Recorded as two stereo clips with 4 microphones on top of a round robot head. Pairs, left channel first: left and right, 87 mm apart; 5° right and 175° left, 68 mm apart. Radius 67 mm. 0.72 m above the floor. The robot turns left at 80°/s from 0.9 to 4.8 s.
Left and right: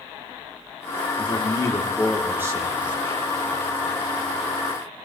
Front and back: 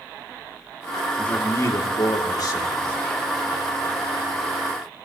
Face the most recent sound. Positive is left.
turn(degrees=145)